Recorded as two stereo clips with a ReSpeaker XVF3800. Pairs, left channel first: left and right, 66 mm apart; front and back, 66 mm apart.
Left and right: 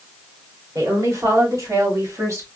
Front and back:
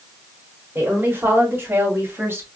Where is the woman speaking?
120° right, 4 m; by 2.5 s 130° right, 2 m.